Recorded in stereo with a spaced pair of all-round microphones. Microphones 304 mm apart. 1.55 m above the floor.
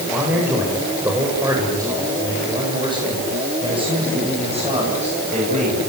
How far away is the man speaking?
About 7.5 m.